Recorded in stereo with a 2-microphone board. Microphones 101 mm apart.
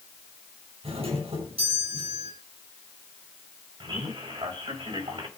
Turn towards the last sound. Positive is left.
turn(degrees=-60)  # may be behind; listen again after turning